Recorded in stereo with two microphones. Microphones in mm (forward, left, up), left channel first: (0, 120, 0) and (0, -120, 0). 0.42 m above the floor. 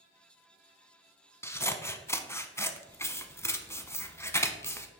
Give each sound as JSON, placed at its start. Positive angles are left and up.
{"t": 1.4, "sound": "scissors", "side_deg": 10, "distance_m": 0.6}